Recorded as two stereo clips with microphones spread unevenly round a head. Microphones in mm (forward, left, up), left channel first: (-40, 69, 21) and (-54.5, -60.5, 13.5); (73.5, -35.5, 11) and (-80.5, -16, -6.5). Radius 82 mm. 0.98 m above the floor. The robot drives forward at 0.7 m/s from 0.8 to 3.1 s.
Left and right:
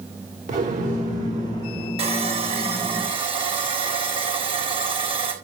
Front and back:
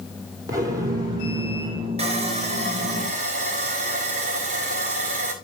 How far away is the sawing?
About 3.5 m.